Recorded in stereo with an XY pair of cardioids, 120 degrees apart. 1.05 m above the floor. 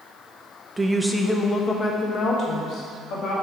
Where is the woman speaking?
15° right, 0.7 m; by 3.3 s 65° left, 1.6 m.